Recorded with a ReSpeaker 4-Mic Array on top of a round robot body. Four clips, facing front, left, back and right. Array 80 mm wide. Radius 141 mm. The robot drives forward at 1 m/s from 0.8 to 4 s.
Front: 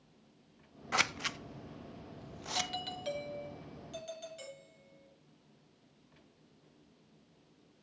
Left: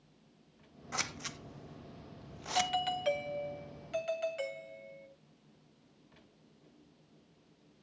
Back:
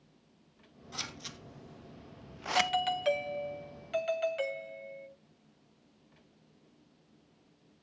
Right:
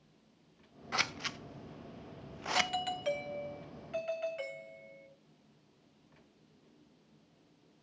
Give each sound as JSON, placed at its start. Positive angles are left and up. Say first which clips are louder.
{"t": 0.9, "sound": "scissors", "louder": "right 4 dB, front 11 dB", "azimuth_deg": -20, "distance_m": 1.4}
{"t": 2.5, "sound": "a doorbell", "louder": "left 2 dB, back 11 dB", "azimuth_deg": 165, "distance_m": 1.4}